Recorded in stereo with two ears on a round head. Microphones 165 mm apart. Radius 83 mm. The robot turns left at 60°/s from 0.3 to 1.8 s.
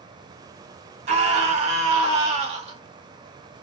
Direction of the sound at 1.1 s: 65° right.